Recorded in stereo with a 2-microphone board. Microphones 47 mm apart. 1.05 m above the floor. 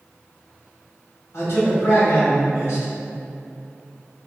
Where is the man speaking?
85° left, 1.2 m.